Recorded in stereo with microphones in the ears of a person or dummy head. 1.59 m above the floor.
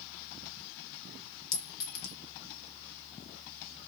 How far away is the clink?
About 0.6 m.